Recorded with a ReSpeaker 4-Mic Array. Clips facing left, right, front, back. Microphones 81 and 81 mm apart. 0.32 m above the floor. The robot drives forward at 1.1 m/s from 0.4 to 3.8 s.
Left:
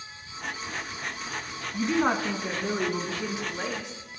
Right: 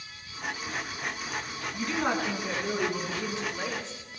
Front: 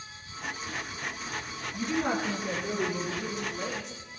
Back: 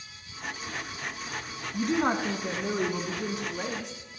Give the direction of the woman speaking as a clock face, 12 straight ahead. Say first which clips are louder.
Left 4 dB, back 3 dB; 7 o'clock.